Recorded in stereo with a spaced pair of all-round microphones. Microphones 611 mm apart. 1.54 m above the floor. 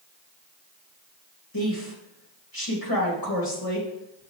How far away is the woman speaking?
About 2.5 m.